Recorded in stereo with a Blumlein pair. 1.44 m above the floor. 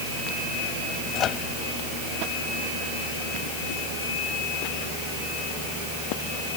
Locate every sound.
1.1 s a microwave: 30° left